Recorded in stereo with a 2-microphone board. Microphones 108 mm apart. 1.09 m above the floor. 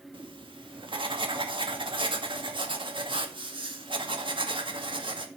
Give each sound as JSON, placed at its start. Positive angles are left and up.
{"t": 0.1, "sound": "writing", "side_deg": -50, "distance_m": 2.0}